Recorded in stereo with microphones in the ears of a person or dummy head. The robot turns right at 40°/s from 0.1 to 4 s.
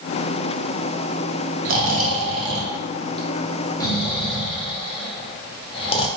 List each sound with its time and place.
1.6 s snoring: 60° right (ahead or behind), 0.9 m; by 6.1 s 30° left (ahead or behind), 0.9 m